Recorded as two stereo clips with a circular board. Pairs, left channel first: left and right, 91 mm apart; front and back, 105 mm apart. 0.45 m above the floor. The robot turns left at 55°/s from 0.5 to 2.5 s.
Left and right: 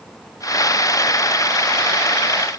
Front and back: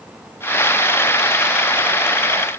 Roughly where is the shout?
No shout in this recording.